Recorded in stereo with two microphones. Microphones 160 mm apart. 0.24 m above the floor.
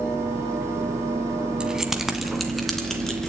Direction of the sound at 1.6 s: 5° right (ahead or behind).